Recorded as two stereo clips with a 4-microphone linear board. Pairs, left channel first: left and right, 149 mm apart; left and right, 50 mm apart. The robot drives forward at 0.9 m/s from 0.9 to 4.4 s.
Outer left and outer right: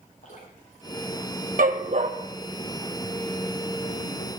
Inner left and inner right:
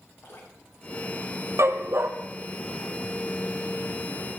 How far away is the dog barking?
About 1.4 m.